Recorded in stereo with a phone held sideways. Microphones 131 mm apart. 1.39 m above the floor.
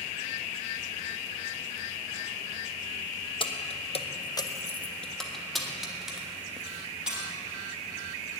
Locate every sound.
3.4 s keys jangling: 40° left (ahead or behind), 0.9 m; by 7.3 s 5° right (ahead or behind), 3.5 m